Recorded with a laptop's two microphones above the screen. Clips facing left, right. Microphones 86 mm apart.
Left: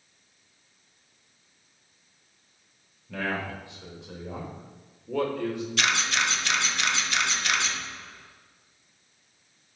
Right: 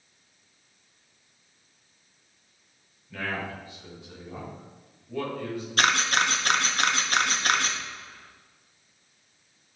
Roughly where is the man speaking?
Left.